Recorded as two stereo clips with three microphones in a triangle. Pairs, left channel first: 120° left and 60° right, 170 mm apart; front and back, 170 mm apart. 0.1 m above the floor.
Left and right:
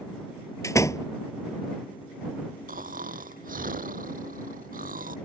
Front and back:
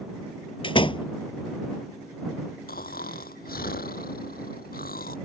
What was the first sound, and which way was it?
A door slam, 50° left.